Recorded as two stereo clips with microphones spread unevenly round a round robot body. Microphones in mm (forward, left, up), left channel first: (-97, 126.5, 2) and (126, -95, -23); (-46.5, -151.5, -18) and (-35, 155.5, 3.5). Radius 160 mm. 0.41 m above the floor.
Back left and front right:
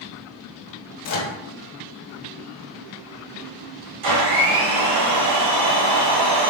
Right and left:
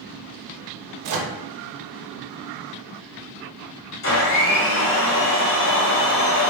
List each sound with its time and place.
1.0 s a microwave: 100° left, 0.8 m
4.0 s a blender: 45° right, 1.5 m